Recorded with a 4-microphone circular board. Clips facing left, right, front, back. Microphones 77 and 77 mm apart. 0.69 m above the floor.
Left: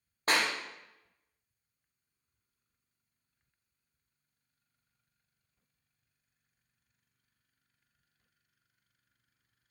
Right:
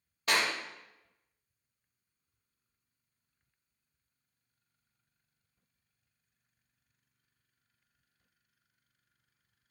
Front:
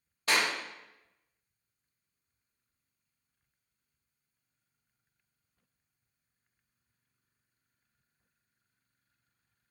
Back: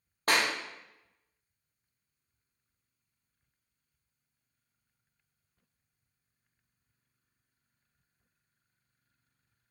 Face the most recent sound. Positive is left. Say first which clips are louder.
# left 1 dB, back 1 dB
turn(degrees=140)